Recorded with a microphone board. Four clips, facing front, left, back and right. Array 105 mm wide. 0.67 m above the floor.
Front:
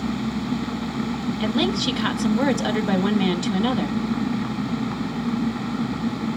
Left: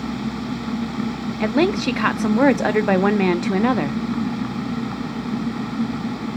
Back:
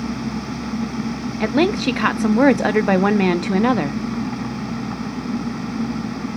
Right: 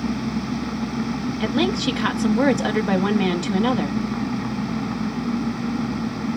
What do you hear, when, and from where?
1.4 s a woman speaking: 150° left, 0.6 m